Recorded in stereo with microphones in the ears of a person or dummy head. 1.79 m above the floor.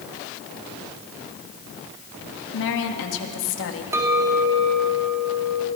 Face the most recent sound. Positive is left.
turn(degrees=-20)  # may be behind; listen again after turning